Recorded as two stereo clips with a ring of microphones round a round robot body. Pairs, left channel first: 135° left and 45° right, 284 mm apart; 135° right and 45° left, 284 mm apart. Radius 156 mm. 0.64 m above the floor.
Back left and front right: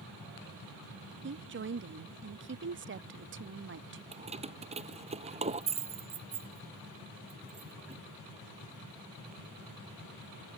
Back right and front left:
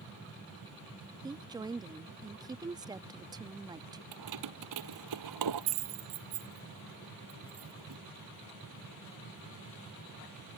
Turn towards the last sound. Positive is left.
turn(degrees=25)